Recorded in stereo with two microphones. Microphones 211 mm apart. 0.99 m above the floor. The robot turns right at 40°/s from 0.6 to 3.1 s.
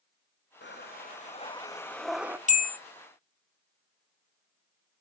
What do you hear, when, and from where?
0.6 s breathing: 120° left, 0.7 m; by 2.4 s 170° right, 0.7 m
2.5 s a bell: 35° left (ahead or behind), 0.6 m; by 2.8 s 45° left (ahead or behind), 0.6 m